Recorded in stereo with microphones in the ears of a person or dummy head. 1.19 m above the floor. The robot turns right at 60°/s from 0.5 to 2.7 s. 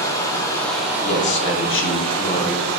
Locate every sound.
0.0 s running water: 170° left, 0.8 m; by 2.8 s 60° right, 0.8 m
1.0 s a man speaking: 65° left, 0.6 m; by 2.8 s 165° left, 0.6 m